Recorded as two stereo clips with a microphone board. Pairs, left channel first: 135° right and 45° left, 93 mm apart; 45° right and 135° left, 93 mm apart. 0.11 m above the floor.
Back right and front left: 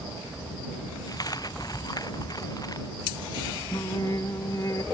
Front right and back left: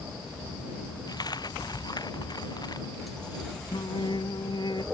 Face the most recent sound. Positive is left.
turn(degrees=-80)